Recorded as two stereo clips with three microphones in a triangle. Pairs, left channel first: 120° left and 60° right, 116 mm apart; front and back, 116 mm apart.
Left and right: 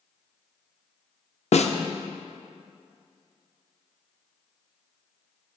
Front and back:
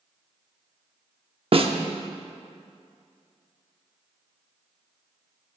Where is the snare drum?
140° left, 0.6 m.